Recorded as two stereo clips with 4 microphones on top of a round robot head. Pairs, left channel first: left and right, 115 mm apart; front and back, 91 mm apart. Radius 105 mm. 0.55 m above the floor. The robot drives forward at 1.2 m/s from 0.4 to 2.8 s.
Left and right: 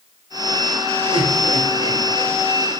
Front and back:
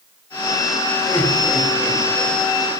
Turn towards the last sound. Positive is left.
turn(degrees=-125)